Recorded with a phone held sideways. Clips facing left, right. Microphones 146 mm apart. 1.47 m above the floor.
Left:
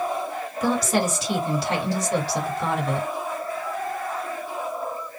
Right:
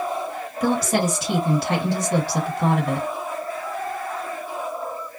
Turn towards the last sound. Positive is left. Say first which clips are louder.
# right 2 dB
turn(degrees=-60)  # may be behind; listen again after turning